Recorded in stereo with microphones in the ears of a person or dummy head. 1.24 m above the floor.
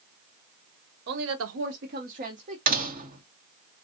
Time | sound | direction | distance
1.1 | a woman speaking | 55° right (ahead or behind) | 0.6 m
2.7 | a door slam | 45° right (ahead or behind) | 1.0 m